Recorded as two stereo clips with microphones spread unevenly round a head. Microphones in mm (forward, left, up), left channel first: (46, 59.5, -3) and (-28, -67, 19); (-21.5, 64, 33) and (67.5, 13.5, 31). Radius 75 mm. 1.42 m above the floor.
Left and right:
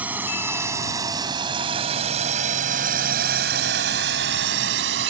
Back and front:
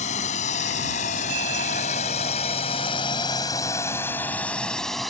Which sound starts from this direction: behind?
A drone, at 0.0 s.